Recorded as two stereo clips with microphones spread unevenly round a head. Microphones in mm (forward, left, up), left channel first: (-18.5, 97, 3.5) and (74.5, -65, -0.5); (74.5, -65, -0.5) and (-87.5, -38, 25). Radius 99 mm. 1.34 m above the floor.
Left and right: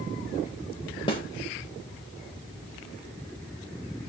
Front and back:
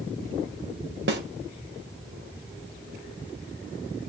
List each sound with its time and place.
1.1 s a snare drum: 175° right, 1.5 m